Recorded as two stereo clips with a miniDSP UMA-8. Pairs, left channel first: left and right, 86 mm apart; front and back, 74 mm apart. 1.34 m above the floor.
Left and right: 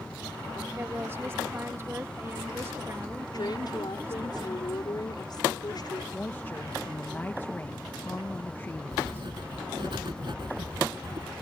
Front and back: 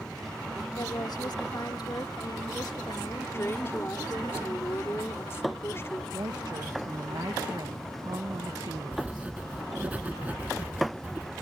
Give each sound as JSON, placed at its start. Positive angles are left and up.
{"t": 0.8, "sound": "a woman speaking", "azimuth_deg": -30}
{"t": 3.3, "sound": "a woman speaking", "azimuth_deg": 55}
{"t": 6.1, "sound": "a woman speaking", "azimuth_deg": 155}
{"t": 8.9, "sound": "writing", "azimuth_deg": -110}